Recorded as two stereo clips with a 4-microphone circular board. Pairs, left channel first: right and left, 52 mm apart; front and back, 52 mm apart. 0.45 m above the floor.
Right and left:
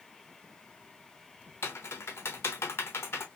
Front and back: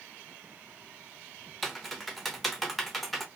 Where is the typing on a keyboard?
85° right, 0.7 m.